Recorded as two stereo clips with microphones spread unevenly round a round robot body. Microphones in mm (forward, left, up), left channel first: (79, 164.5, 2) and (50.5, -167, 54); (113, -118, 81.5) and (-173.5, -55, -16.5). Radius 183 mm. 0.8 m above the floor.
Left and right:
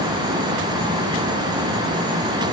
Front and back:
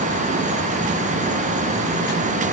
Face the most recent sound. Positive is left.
No sound to turn to.